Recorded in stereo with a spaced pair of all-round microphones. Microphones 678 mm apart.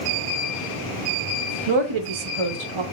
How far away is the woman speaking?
About 1.0 m.